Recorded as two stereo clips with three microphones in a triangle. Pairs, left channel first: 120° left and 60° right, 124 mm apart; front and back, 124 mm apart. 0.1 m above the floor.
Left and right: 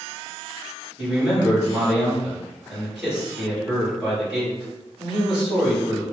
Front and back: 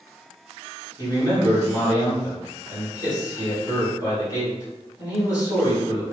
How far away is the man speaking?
About 1.8 m.